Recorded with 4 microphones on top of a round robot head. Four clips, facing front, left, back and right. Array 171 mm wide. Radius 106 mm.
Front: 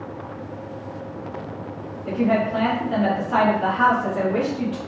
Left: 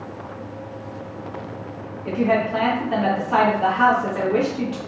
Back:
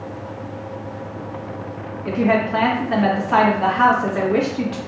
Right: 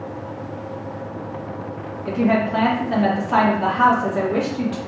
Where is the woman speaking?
165° right, 1.3 m.